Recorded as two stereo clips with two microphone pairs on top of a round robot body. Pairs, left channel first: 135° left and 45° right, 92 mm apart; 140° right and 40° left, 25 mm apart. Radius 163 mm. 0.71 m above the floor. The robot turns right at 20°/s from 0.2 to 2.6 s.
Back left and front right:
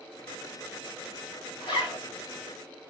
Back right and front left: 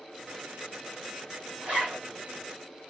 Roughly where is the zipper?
Left.